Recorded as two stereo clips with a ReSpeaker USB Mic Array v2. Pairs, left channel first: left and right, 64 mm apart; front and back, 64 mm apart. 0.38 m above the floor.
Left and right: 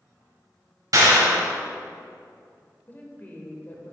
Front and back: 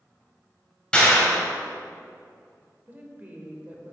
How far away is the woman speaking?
About 1.0 m.